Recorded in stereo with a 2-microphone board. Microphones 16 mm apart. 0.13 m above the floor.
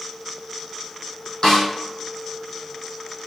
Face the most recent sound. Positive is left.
turn(degrees=50)  # may be behind; listen again after turning